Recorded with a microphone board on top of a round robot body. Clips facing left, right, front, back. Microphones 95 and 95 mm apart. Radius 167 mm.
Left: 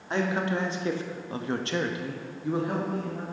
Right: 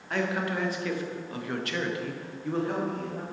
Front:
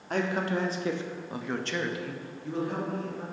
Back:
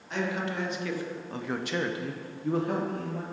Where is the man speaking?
30° left, 1.4 m; by 3.2 s 175° left, 1.6 m.